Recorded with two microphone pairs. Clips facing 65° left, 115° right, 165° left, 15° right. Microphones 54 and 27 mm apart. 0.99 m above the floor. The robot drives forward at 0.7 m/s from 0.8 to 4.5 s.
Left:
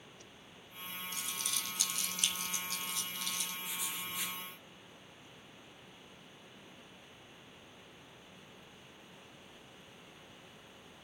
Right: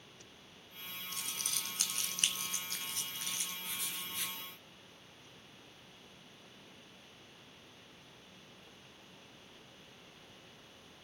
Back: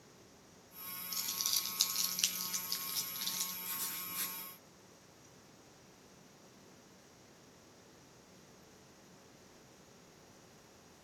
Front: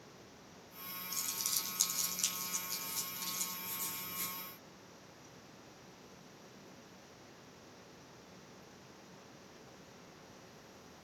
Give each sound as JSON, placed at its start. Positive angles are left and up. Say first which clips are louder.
{"t": 1.1, "sound": "crumpling", "louder": "left 1 dB, back 3 dB", "azimuth_deg": -140, "distance_m": 1.4}
{"t": 3.6, "sound": "writing", "louder": "left 2 dB, even", "azimuth_deg": 150, "distance_m": 4.5}